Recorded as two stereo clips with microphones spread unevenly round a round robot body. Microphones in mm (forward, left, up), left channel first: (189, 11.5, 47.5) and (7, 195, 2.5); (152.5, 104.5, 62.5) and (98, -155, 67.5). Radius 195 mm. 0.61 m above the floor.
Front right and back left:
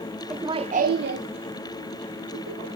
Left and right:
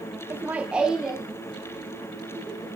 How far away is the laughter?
About 0.5 m.